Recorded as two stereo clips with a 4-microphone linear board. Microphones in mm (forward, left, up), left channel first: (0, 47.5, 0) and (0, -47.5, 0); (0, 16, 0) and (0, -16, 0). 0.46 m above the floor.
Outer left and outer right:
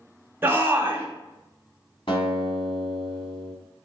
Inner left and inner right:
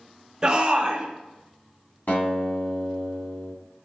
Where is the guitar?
65° left (ahead or behind), 2 m.